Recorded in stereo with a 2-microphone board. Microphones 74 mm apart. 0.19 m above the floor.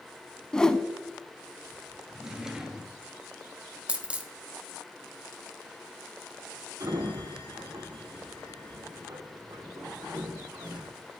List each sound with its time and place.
0.5 s a whoosh: 10° left (ahead or behind), 0.5 m
2.1 s a drawer: 5° right (ahead or behind), 1.1 m
3.9 s a dropped coin: 15° right (ahead or behind), 0.9 m
6.8 s a sliding door: 55° right (ahead or behind), 5 m